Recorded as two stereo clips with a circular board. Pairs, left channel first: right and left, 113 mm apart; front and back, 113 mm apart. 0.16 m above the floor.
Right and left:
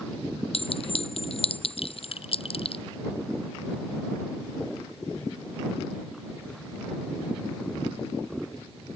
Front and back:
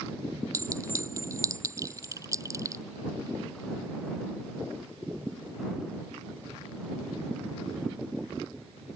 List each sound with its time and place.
0.5 s a clink: 120° right